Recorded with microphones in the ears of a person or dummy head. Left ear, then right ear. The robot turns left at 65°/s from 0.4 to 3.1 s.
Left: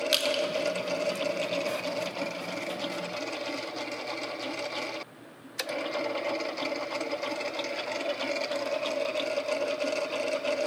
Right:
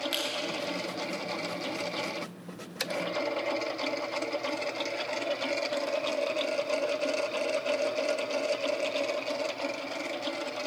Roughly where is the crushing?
Left.